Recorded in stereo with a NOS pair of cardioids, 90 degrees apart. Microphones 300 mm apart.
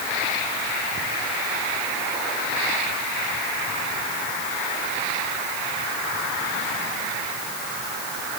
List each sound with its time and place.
Only background noise.